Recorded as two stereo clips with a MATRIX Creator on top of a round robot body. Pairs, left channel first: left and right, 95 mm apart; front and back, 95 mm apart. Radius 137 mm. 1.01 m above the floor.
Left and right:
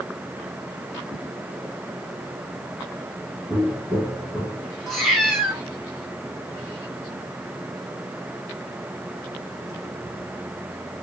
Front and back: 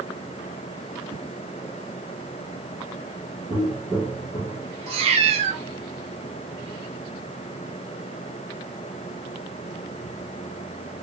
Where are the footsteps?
155° right, 1.0 m; by 4.8 s 10° right, 1.3 m.